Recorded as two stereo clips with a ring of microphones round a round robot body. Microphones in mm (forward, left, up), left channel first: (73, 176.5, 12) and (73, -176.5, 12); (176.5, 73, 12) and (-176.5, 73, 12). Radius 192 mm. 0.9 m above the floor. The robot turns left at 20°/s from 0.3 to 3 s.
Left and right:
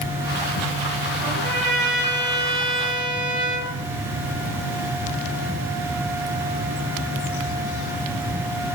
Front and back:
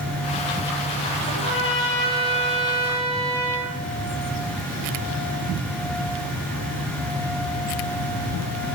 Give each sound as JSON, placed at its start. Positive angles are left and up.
{"t": 1.2, "sound": "a trumpet", "azimuth_deg": -50, "distance_m": 4.0}